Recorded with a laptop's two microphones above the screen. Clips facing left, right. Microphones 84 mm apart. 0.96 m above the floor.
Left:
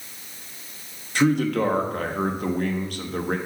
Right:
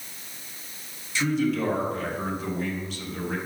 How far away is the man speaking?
About 1.2 m.